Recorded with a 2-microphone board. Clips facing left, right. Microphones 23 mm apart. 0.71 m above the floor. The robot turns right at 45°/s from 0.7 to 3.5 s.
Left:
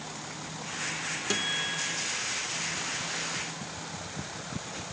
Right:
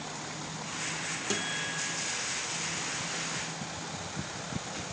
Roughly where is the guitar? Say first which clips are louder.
Left 4 dB; ahead left.